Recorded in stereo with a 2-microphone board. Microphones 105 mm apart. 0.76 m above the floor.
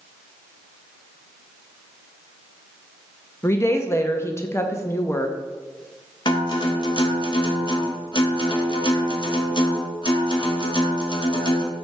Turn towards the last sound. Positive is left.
turn(degrees=50)  # may be behind; listen again after turning